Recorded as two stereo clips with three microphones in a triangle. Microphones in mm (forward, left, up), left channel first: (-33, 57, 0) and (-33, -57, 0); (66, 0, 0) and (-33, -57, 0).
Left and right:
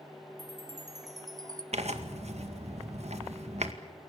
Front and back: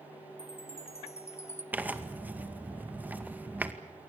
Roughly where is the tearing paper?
Right.